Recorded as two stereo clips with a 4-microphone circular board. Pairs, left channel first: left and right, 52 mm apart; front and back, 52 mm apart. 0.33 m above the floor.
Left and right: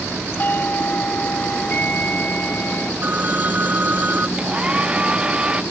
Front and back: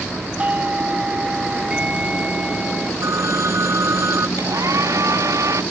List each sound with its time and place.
0.4 s a doorbell: 120° left
3.0 s a phone ringing: 150° right
4.4 s a hair dryer: 160° right